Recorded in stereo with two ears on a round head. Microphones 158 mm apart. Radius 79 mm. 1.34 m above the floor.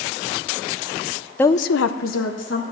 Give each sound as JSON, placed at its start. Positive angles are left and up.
{"t": 1.4, "sound": "a woman speaking", "side_deg": 10, "distance_m": 0.5}